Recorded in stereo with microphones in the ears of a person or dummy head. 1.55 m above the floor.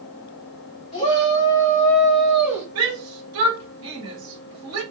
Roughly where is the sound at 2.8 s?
Right.